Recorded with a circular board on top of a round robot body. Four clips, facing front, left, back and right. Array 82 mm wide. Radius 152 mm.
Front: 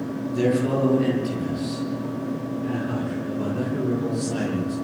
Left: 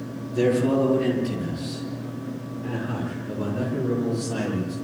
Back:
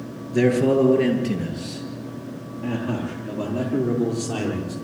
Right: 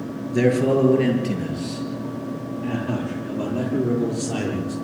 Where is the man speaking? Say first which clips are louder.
Right 2 dB, back 4 dB; 135° right, 8.5 m.